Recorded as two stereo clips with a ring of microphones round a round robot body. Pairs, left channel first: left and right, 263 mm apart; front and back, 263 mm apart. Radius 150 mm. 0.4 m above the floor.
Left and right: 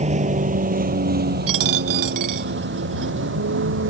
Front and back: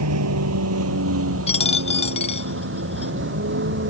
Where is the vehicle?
155° right; by 3.9 s 135° right.